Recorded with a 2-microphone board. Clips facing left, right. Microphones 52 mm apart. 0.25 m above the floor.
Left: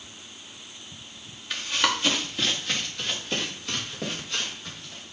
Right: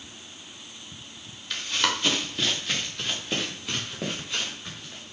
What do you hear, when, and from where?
1.5 s running footsteps: 10° left (ahead or behind), 3 m; by 5.0 s 15° right (ahead or behind), 6 m